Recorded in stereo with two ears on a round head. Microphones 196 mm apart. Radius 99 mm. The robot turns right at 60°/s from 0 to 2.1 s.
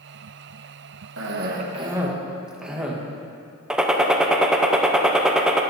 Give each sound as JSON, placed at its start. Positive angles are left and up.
{"t": 1.2, "sound": "a cough", "azimuth_deg": -60, "distance_m": 1.5}
{"t": 3.7, "sound": "a gunshot", "side_deg": -5, "distance_m": 0.8}